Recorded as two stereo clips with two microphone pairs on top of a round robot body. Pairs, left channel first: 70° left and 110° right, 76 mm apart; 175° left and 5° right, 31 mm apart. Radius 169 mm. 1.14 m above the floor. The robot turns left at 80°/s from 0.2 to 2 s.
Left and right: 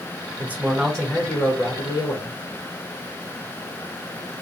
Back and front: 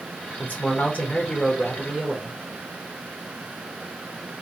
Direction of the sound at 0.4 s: 155° right.